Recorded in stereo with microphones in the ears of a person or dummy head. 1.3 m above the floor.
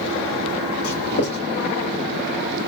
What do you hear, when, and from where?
0.8 s writing: 65° left (ahead or behind), 2.5 m